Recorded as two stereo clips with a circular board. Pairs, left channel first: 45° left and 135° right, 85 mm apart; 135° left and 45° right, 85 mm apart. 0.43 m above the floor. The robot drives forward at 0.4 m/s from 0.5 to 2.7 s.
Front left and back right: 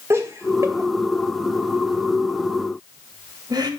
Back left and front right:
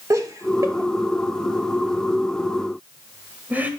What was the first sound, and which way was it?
Laughter, 85° right.